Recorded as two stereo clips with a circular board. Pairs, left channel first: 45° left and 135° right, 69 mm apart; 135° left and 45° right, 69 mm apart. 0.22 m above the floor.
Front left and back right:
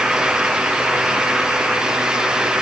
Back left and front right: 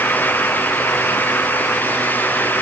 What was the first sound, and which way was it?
Only background noise.